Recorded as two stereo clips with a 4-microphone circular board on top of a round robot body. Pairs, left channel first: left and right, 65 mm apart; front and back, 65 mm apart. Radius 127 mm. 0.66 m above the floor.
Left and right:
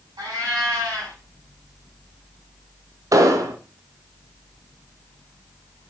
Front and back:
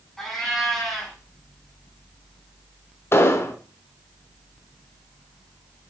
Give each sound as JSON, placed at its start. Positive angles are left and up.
{"t": 0.2, "sound": "a cat meowing", "azimuth_deg": -85, "distance_m": 6.5}
{"t": 3.1, "sound": "an explosion", "azimuth_deg": -50, "distance_m": 1.3}